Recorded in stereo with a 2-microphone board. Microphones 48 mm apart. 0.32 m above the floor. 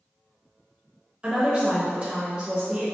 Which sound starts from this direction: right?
A woman speaking, at 1.2 s.